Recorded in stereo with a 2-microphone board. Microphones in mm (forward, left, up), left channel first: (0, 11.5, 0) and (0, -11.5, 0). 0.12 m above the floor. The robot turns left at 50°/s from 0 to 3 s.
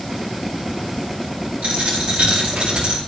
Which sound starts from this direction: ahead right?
A dropped coin, at 1.6 s.